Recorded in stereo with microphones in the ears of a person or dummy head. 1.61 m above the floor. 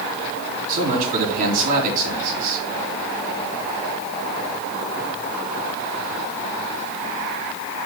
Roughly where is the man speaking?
Right.